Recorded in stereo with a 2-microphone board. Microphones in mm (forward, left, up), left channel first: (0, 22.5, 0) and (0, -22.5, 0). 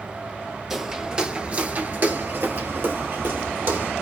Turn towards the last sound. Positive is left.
turn(degrees=-50)  # may be behind; listen again after turning